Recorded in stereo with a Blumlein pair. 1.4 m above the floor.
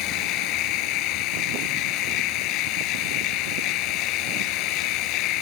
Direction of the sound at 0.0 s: 40° left.